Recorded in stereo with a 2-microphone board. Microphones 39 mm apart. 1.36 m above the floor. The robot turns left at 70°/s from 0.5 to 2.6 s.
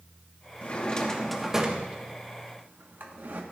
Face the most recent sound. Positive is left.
turn(degrees=-55)  # may be behind; listen again after turning